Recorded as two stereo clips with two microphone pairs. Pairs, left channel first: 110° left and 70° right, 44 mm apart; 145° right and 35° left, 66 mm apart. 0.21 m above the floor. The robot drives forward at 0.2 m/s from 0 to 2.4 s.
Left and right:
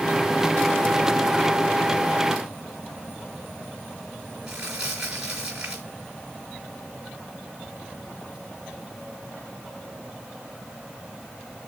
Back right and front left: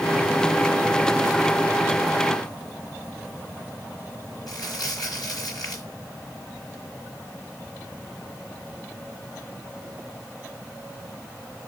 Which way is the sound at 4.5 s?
145° right.